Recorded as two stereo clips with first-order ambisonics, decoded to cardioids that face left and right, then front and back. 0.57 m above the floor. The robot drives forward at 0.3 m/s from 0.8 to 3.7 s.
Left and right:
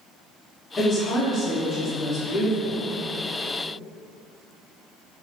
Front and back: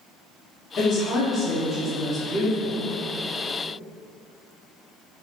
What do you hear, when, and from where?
0.8 s a woman speaking: 15° left, 0.7 m; by 2.9 s 160° left, 0.6 m